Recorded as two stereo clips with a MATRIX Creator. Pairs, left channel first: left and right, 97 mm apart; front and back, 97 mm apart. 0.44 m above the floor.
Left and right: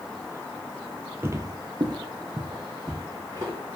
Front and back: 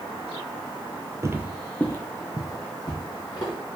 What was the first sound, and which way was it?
Footsteps, 140° right.